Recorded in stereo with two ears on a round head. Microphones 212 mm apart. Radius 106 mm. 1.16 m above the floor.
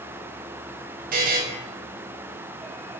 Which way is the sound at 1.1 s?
35° right (ahead or behind).